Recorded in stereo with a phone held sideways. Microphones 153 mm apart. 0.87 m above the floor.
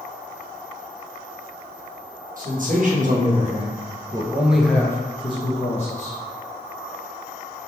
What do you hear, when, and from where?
2.4 s a man speaking: 65° right (ahead or behind), 1.3 m; by 6.2 s 55° left (ahead or behind), 1.0 m